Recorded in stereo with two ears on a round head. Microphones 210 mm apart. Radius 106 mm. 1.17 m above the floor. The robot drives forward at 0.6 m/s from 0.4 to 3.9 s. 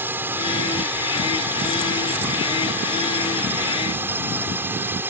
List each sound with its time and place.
0.0 s a drone: 10° right (ahead or behind)